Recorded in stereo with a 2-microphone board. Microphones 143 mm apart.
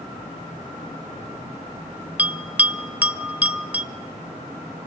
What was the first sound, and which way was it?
A bell, 10° right (ahead or behind).